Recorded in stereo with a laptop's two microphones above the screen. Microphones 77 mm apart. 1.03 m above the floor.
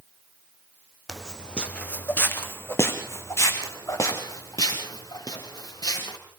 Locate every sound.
1.1 s footsteps: centre (ahead or behind), 2.5 m; by 6.2 s 55° left (ahead or behind), 7 m